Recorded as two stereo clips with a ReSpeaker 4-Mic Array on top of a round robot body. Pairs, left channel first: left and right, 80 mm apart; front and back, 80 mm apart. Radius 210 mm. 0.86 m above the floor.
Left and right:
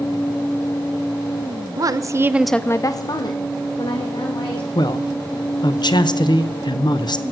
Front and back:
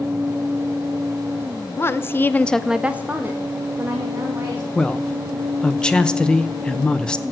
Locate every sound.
1.8 s a woman speaking: 55° right, 1.0 m; by 4.7 s 115° left, 2.5 m
4.8 s a man speaking: 80° left, 1.0 m